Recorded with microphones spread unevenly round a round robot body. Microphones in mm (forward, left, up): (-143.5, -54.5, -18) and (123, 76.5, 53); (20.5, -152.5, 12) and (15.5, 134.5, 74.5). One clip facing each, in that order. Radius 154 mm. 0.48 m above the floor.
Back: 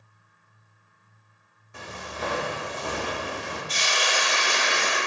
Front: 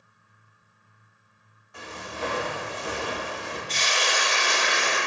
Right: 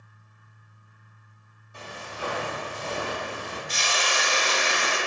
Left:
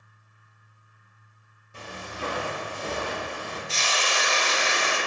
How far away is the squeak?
I don't hear a squeak.